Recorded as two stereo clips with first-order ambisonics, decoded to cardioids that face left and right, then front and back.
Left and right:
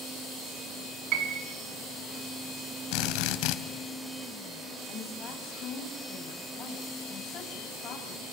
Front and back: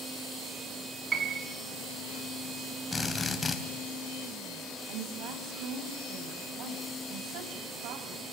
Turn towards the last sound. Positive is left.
turn(degrees=145)